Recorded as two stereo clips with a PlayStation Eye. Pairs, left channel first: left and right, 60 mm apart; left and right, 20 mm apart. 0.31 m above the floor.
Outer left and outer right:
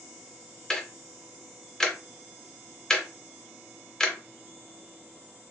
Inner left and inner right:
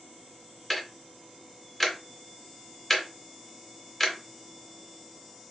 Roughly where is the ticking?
Centre.